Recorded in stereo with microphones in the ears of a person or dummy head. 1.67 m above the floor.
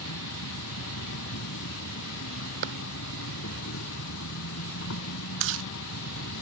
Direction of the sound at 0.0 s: 75° left (ahead or behind).